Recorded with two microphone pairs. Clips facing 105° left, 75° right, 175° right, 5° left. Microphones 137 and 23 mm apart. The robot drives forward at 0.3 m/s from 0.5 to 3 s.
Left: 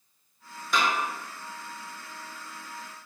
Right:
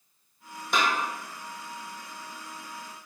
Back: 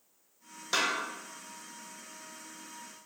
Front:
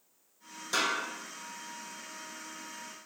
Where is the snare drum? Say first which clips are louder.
Even, even; 130° right, 1.1 m; by 1.0 s 135° right, 1.1 m.